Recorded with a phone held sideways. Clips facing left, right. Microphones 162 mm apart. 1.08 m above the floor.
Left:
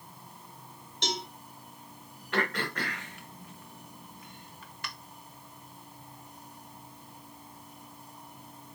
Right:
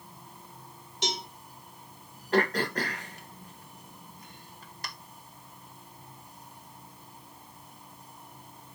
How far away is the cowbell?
About 1.2 m.